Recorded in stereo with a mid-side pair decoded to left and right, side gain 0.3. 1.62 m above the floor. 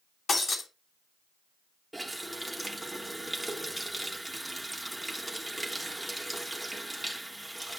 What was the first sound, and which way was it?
Breaking glass, 60° left.